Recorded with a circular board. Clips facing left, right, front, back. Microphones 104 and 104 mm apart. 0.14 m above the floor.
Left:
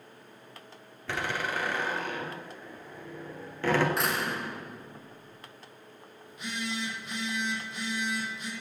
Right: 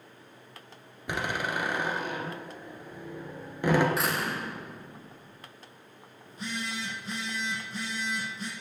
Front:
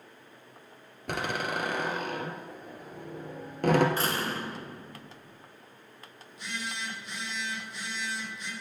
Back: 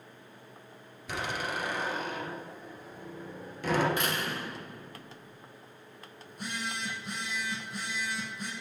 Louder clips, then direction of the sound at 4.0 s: Even, front 2 dB; straight ahead.